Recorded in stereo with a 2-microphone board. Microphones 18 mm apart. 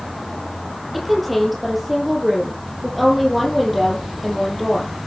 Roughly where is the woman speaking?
Centre.